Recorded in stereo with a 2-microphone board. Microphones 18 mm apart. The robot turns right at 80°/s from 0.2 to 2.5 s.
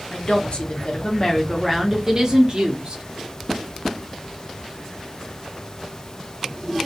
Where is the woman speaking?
65° left, 0.8 m; by 3.0 s 110° right, 0.8 m.